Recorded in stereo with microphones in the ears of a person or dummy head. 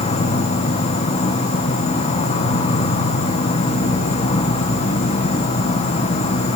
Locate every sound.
0.0 s an insect: 35° left (ahead or behind), 0.9 m